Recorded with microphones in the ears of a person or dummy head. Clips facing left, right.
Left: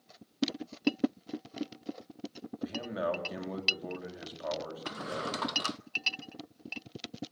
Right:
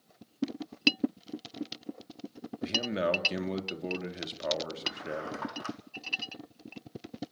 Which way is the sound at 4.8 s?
50° left (ahead or behind).